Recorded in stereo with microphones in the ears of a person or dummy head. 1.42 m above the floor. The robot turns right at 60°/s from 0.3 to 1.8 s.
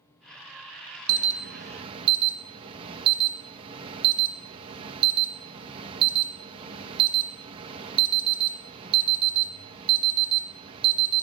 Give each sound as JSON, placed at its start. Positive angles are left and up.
{"t": 1.1, "sound": "an alarm", "azimuth_deg": -75, "distance_m": 1.5}